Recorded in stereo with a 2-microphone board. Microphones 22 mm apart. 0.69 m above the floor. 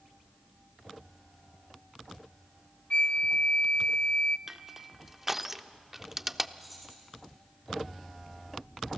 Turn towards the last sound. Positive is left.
turn(degrees=0)  # may be behind; listen again after turning